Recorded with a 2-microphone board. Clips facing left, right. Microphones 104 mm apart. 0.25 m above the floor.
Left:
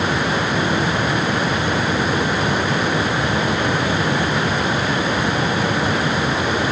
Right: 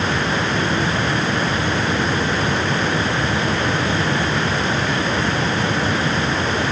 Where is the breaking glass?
I don't hear breaking glass.